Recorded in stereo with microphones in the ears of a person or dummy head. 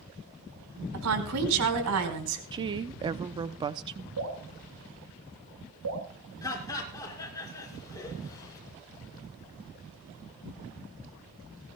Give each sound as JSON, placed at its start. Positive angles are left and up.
{"t": 0.9, "sound": "a woman speaking", "side_deg": -85, "distance_m": 4.5}
{"t": 2.5, "sound": "a woman speaking", "side_deg": -20, "distance_m": 0.5}
{"t": 4.2, "sound": "dripping", "side_deg": -85, "distance_m": 5.0}
{"t": 6.4, "sound": "laughter", "side_deg": 20, "distance_m": 5.0}